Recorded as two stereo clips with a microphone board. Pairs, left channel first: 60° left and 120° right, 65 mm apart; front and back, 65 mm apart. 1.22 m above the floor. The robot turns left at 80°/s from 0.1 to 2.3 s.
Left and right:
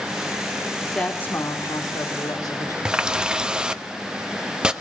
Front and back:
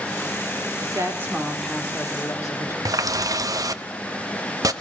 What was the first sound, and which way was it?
A woman speaking, 155° left.